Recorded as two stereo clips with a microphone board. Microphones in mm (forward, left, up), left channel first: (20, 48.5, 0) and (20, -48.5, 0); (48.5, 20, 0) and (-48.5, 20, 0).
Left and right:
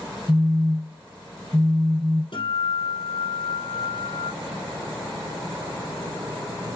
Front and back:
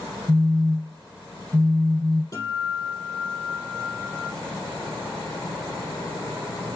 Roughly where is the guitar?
Ahead left.